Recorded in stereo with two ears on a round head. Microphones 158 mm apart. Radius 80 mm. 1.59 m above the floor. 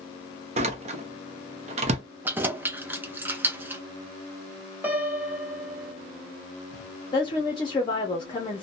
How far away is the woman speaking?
About 0.5 m.